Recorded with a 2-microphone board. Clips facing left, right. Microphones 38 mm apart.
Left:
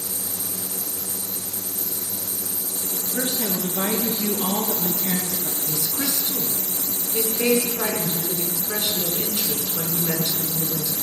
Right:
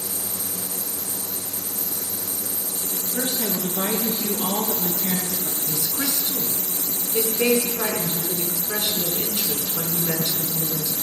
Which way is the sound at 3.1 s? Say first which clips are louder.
Even; 35° left (ahead or behind).